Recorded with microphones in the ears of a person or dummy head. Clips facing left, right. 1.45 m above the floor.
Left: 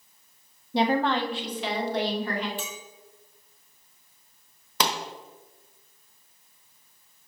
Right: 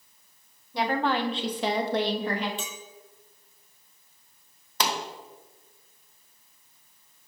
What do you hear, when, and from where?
0.7 s a woman speaking: 30° left (ahead or behind), 0.7 m; by 2.5 s 50° right (ahead or behind), 2 m
2.6 s a clink: 20° right (ahead or behind), 1.3 m
4.8 s a pop: 60° left (ahead or behind), 1.2 m